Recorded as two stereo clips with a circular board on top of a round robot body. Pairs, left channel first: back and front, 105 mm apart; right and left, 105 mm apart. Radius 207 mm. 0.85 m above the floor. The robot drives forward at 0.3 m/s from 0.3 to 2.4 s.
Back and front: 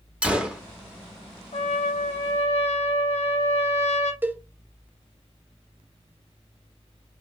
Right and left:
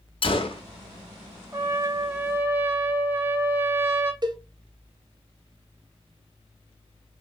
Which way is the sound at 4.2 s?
65° left.